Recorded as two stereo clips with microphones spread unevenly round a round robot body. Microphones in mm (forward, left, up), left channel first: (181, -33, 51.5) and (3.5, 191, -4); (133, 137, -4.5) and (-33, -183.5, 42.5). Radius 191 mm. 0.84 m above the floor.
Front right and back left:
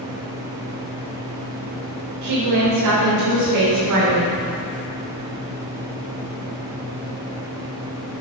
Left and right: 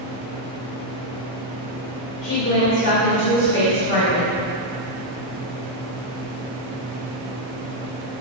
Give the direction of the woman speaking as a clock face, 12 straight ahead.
8 o'clock.